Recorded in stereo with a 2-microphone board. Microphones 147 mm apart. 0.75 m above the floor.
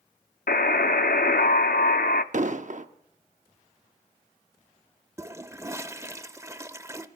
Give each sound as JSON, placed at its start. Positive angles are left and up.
{"t": 0.5, "sound": "a buzzer", "side_deg": 85, "distance_m": 0.5}
{"t": 2.3, "sound": "an explosion", "side_deg": -55, "distance_m": 0.7}
{"t": 5.2, "sound": "a toilet flushing", "side_deg": -20, "distance_m": 0.6}